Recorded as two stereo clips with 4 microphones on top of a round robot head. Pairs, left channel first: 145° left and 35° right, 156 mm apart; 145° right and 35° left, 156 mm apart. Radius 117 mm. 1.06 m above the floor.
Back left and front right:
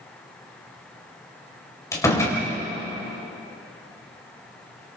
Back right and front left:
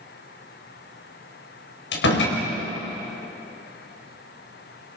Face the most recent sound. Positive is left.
turn(degrees=-145)